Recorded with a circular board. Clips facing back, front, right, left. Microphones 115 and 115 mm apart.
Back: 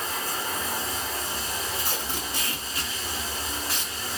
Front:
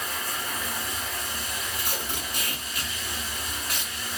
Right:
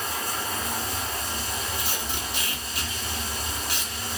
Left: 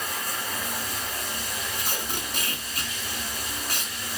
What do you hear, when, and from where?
0.0 s running water: 140° right, 0.7 m
1.8 s tape being pulled: 120° left, 1.0 m